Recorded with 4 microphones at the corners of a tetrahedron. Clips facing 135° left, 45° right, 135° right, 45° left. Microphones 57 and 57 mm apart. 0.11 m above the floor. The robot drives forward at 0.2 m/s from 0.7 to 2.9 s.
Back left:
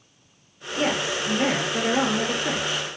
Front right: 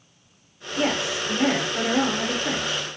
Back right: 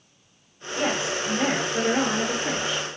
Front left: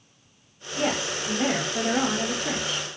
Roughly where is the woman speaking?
Behind.